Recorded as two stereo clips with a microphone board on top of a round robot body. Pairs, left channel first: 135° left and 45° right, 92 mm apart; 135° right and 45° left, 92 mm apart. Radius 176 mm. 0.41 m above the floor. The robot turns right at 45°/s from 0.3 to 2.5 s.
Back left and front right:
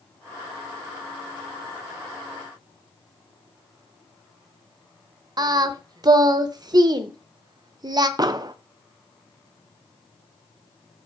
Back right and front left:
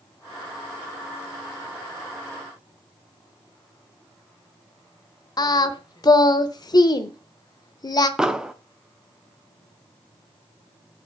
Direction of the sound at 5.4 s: 90° right.